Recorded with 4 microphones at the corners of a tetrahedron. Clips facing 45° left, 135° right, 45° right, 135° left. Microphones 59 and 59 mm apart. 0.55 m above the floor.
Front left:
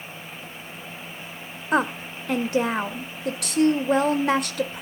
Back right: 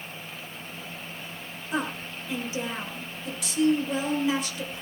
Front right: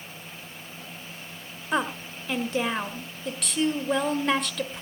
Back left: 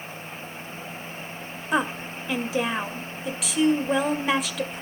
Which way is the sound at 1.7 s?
50° left.